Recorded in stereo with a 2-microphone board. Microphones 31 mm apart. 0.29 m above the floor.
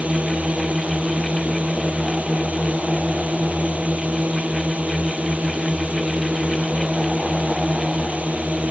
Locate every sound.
0.0 s a drone: 50° right (ahead or behind)